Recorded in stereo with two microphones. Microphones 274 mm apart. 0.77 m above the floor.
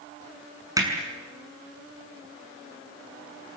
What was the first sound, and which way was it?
Hammering, 15° right (ahead or behind).